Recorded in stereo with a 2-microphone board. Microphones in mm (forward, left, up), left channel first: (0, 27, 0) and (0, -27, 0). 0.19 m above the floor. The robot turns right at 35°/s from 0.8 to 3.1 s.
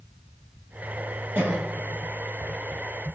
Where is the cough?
30° right (ahead or behind), 1.3 m; by 1.7 s 25° right (ahead or behind), 1.3 m.